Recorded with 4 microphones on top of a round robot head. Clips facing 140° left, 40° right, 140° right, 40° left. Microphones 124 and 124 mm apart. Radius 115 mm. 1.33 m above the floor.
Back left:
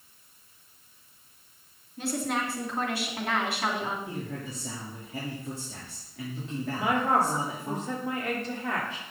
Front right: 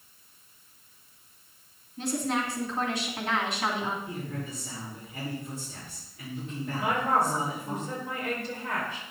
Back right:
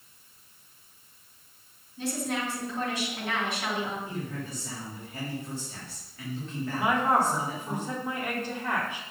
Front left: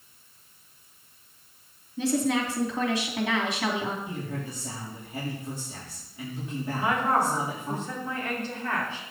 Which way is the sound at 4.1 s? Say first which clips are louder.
Even, front left 1 dB; 115° left.